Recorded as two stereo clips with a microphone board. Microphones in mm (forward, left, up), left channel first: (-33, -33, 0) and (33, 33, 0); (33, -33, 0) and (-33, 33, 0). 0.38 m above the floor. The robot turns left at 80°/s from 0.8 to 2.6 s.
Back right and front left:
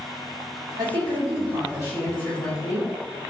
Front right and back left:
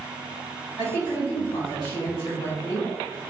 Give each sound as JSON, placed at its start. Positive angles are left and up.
{"t": 0.8, "sound": "a woman speaking", "azimuth_deg": 55, "distance_m": 1.9}